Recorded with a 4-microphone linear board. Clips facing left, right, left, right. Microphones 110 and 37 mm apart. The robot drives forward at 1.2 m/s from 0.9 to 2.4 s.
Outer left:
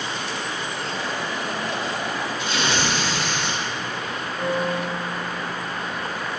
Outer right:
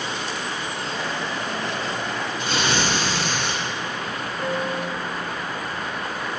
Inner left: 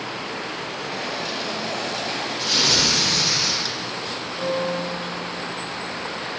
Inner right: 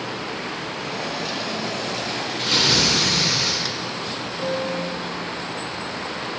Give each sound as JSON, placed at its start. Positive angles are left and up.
{"t": 2.4, "sound": "tearing paper", "side_deg": -60, "distance_m": 3.5}
{"t": 4.4, "sound": "a piano", "side_deg": 15, "distance_m": 2.5}